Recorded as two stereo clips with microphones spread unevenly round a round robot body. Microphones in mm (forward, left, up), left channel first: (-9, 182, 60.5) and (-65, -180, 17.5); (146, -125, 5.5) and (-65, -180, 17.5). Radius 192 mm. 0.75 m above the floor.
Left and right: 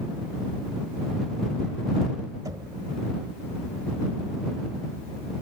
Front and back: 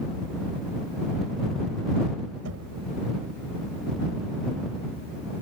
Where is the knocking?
Straight behind.